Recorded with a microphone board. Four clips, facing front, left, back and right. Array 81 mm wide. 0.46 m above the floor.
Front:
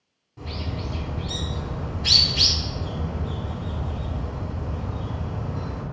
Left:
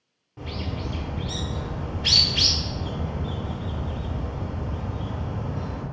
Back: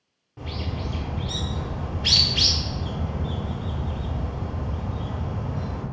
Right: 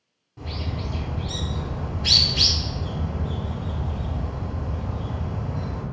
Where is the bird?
140° left, 1.1 m.